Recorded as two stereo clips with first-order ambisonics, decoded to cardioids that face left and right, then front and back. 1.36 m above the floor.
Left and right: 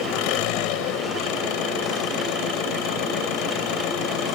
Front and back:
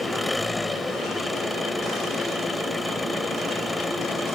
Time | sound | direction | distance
0.0 | an engine running | 80° left | ?